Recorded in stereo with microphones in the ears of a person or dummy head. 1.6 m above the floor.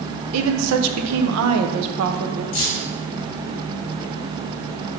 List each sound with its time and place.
0.3 s a woman speaking: 80° right, 1.2 m
2.5 s keys jangling: 35° left (ahead or behind), 2.5 m